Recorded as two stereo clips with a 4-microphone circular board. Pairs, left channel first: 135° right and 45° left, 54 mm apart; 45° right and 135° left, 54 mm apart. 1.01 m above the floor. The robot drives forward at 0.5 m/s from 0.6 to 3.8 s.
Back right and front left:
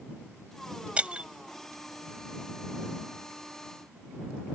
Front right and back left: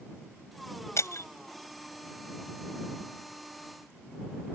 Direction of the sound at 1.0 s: 25° right.